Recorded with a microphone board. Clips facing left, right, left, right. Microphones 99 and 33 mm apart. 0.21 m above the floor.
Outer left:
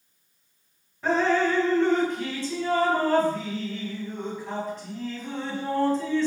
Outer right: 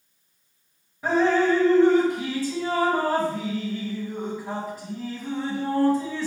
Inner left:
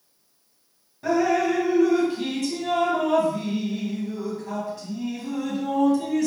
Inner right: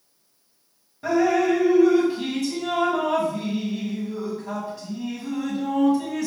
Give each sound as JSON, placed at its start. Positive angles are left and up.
{"t": 1.0, "sound": "dripping", "side_deg": -10, "distance_m": 1.7}